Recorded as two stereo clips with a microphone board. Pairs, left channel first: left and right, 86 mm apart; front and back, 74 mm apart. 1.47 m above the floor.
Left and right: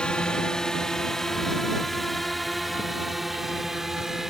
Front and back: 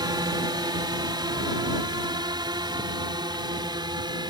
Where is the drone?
170° left; by 4.3 s 175° right.